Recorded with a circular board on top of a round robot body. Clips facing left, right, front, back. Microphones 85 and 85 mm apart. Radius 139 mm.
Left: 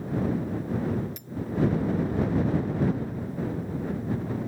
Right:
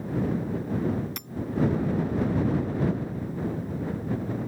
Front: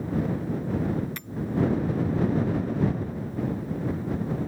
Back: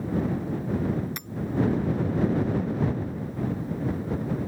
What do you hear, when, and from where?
1.2 s hammering: 105° right